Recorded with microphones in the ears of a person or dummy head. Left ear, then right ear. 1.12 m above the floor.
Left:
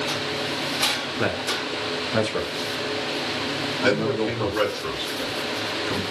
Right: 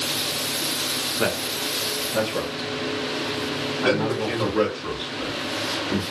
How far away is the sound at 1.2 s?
About 0.5 m.